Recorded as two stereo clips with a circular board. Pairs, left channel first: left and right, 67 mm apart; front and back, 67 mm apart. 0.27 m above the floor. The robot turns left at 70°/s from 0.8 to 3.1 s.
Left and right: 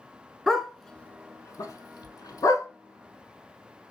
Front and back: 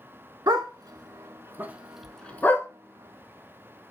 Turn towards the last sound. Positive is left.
turn(degrees=15)